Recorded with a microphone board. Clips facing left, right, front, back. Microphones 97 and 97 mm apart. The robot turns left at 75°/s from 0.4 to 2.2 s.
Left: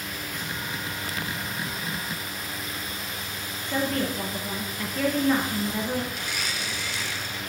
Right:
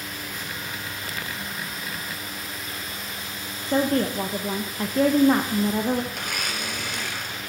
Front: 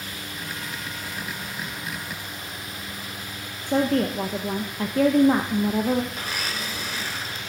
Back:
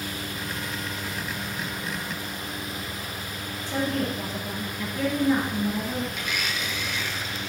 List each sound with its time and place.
3.7 s a woman speaking: 35° right, 0.8 m
6.1 s a blender: 55° right, 0.9 m